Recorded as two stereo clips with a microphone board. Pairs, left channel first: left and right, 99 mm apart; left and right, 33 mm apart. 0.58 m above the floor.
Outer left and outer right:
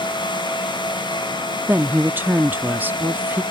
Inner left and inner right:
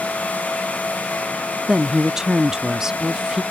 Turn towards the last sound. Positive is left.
turn(degrees=-20)  # may be behind; listen again after turning